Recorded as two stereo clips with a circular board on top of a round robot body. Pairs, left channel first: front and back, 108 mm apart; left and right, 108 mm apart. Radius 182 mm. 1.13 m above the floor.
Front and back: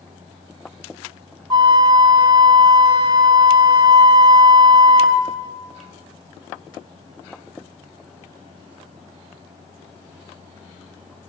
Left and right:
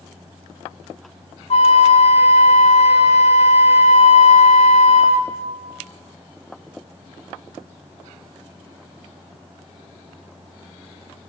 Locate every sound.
1.5 s a flute: 125° left, 0.7 m